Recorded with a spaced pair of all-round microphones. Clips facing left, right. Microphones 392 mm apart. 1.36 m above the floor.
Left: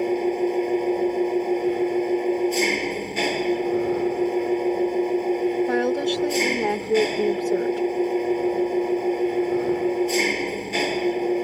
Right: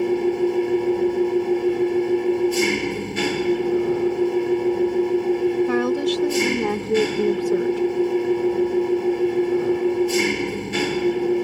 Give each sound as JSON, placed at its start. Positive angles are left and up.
{"t": 0.0, "sound": "an engine running", "side_deg": -20}
{"t": 5.7, "sound": "a woman speaking", "side_deg": -20}